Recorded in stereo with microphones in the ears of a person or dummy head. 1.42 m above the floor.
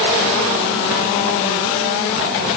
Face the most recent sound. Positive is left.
No sound to turn to.